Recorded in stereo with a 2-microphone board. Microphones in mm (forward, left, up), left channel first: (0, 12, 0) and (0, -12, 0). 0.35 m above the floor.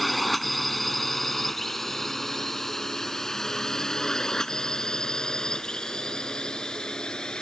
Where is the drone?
Centre (ahead or behind); by 7.4 s 35° left (ahead or behind).